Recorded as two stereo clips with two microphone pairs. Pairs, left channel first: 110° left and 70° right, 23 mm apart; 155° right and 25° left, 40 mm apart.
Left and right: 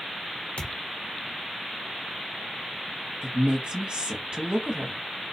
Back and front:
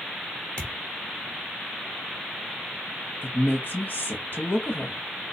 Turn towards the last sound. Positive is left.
turn(degrees=-110)